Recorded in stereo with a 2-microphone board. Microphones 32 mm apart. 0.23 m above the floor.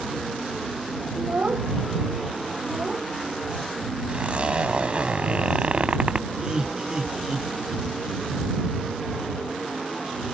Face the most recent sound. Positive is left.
turn(degrees=-25)  # may be behind; listen again after turning